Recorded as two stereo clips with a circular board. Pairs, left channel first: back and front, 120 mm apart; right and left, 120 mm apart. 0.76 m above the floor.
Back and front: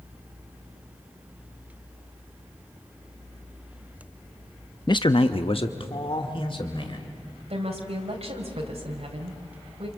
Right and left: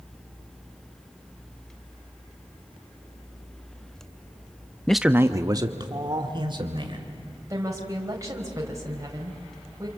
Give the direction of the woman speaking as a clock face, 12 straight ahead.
11 o'clock.